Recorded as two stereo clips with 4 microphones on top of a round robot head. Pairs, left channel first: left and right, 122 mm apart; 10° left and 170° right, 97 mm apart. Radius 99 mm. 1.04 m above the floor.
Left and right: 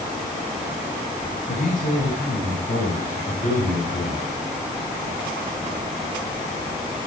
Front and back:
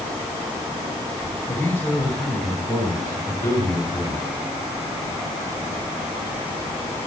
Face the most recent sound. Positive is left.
turn(degrees=70)